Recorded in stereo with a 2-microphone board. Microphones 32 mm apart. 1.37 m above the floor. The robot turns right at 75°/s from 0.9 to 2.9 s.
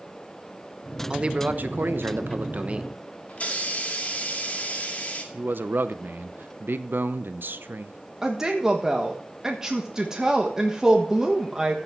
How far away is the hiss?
About 2 m.